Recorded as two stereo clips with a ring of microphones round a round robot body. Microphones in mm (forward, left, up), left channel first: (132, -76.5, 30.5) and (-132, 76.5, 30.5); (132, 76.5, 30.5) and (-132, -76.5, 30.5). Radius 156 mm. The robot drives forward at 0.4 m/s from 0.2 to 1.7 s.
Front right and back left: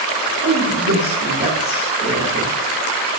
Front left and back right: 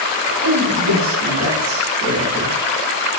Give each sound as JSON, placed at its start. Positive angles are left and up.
{"t": 0.4, "sound": "a man speaking", "azimuth_deg": -150, "distance_m": 1.1}